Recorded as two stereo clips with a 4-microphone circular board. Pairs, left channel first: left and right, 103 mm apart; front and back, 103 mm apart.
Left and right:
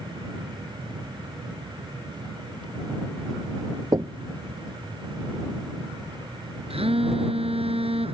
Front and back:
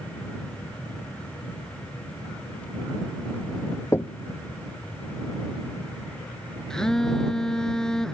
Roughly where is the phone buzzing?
Right.